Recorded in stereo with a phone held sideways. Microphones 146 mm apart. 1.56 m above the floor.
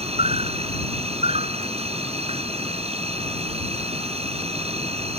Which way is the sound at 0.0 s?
45° right (ahead or behind).